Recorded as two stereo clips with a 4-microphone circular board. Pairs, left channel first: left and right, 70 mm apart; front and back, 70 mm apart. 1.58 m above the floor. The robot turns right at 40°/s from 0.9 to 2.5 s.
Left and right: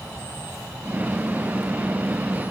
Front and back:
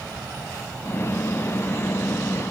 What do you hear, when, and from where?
Only background noise.